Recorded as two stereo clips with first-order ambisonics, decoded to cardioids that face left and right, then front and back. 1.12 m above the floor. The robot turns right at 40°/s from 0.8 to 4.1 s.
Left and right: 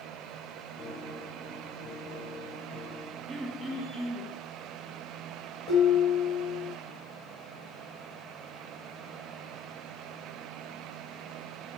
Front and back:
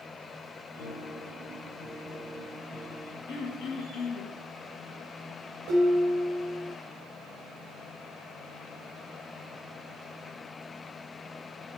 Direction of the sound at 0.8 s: 30° left.